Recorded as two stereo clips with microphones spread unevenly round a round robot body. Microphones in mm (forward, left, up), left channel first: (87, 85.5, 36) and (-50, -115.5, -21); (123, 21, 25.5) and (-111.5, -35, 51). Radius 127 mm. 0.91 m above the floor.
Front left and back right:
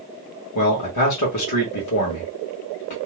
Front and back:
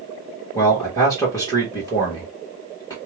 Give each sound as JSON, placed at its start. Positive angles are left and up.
{"t": 0.6, "sound": "a man speaking", "azimuth_deg": 85, "distance_m": 1.4}